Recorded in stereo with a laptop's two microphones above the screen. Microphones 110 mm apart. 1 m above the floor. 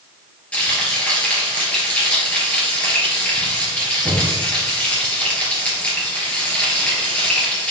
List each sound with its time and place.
0.5 s frying: 10° left (ahead or behind), 3 m